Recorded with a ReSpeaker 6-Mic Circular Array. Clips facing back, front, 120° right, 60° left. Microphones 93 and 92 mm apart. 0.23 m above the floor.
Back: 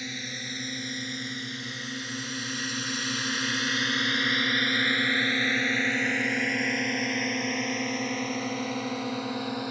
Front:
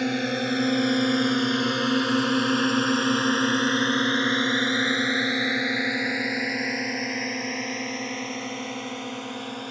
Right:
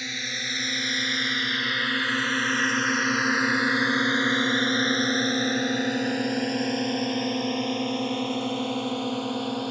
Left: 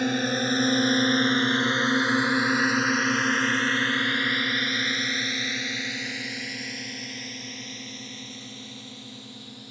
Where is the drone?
25° left; by 9.7 s 95° right.